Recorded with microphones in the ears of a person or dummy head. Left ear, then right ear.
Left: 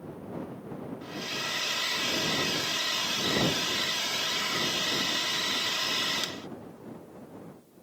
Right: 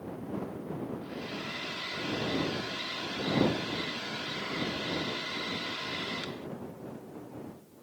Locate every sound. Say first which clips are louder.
1.0 s a hair dryer: left 5 dB; 85° left